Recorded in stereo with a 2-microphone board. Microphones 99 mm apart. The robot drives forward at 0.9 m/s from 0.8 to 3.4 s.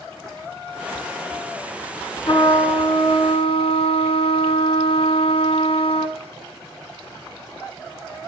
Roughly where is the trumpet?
Left.